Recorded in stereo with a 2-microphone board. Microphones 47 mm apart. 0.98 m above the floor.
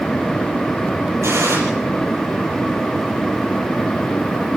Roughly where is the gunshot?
Right.